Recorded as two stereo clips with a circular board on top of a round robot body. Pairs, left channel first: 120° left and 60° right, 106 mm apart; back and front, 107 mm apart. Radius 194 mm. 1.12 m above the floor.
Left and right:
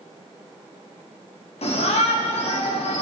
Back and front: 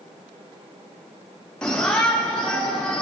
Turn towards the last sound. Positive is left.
turn(degrees=95)